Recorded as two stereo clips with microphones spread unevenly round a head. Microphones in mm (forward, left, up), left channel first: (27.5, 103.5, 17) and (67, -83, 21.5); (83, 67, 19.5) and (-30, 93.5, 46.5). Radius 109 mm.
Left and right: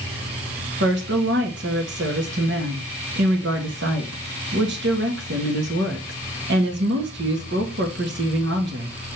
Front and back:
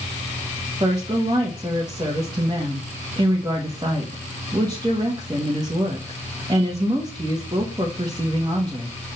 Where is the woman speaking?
120° right, 1.2 m.